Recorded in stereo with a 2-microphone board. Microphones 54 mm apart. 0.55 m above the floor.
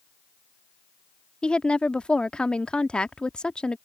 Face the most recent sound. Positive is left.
turn(degrees=20)  # may be behind; listen again after turning